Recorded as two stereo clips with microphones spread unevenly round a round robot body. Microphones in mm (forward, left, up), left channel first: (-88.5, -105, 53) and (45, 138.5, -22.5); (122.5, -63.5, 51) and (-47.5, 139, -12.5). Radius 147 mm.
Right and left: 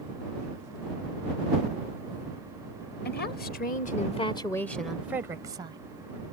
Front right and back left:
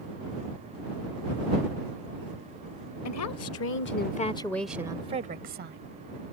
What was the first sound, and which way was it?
A woman speaking, 60° right.